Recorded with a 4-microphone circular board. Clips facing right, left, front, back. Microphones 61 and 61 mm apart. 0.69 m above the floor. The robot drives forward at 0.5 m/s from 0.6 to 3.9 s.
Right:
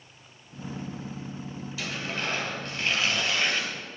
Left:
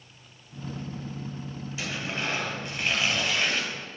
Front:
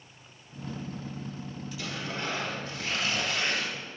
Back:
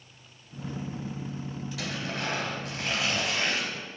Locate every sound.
1.8 s tearing paper: 160° left, 2.5 m; by 3.7 s 165° left, 3.5 m